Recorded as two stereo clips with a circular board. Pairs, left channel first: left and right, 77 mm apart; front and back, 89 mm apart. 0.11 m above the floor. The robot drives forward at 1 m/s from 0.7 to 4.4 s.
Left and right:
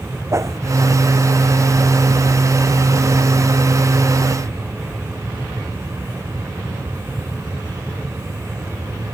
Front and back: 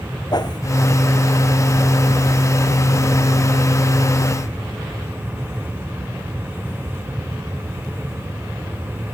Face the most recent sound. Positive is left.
turn(degrees=-100)